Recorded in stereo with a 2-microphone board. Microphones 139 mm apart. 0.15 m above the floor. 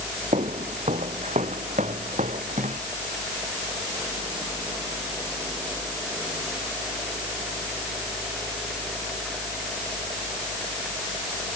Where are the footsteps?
55° right (ahead or behind); by 2.8 s 65° right (ahead or behind).